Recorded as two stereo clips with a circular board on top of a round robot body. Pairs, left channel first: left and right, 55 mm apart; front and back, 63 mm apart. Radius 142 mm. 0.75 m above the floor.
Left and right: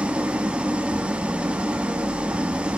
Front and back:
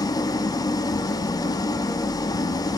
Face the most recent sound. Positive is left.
turn(degrees=-20)